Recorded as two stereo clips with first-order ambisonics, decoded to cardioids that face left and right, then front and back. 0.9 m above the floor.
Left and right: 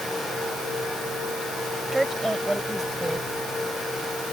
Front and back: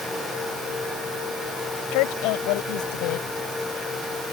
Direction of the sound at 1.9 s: 5° right.